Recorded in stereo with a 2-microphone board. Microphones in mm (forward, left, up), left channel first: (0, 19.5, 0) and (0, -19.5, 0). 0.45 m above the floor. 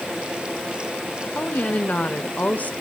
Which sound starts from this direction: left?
A woman speaking, at 1.4 s.